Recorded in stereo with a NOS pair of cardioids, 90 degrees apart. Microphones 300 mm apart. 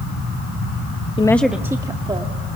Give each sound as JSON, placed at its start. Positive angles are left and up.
{"t": 1.2, "sound": "a woman speaking", "azimuth_deg": 20, "distance_m": 0.7}